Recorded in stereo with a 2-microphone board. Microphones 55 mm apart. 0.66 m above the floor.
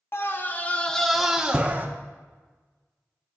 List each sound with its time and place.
0.1 s a scream: 45° left (ahead or behind), 0.9 m; by 1.9 s 30° right (ahead or behind), 0.8 m